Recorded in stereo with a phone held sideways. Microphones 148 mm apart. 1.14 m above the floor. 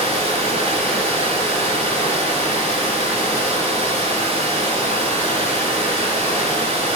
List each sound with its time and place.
0.0 s running water: 40° right (ahead or behind), 1.4 m